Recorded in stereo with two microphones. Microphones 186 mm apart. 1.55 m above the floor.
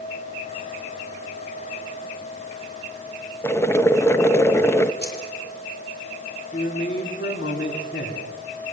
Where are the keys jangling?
65° left (ahead or behind), 5 m.